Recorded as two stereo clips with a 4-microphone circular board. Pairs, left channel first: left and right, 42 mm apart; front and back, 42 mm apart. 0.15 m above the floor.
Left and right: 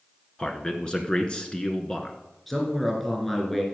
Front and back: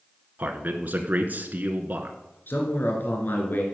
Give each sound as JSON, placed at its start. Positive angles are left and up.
{"t": 0.4, "sound": "a man speaking", "azimuth_deg": 150, "distance_m": 1.6}
{"t": 2.5, "sound": "a man speaking", "azimuth_deg": 5, "distance_m": 2.5}